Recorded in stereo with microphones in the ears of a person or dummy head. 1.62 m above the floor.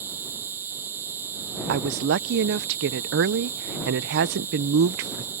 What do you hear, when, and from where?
0.0 s an insect: 15° right (ahead or behind)
1.7 s a woman speaking: 60° right (ahead or behind)